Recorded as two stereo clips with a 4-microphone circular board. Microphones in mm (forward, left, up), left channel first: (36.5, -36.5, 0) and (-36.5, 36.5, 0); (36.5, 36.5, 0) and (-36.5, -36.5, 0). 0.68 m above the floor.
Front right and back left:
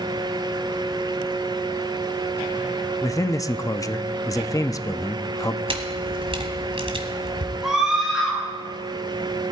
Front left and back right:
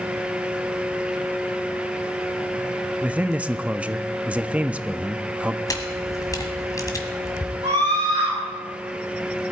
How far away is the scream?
About 6.5 m.